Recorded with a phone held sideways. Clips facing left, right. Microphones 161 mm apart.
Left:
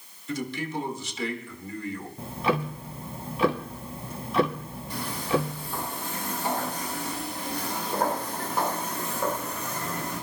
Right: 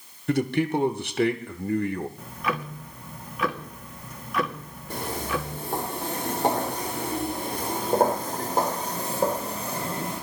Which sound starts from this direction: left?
Ticking, at 2.2 s.